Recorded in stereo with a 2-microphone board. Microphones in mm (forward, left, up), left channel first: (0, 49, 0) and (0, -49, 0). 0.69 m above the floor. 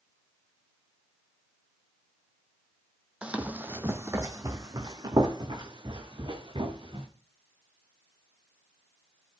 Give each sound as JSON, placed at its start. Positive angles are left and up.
{"t": 3.2, "sound": "running footsteps", "side_deg": -10, "distance_m": 1.2}